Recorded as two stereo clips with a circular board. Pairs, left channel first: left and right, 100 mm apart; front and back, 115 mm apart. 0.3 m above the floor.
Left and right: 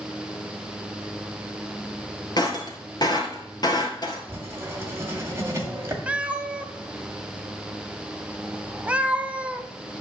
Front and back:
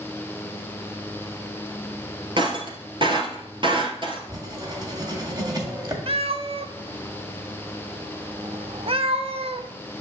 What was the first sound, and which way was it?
Breaking glass, 135° left.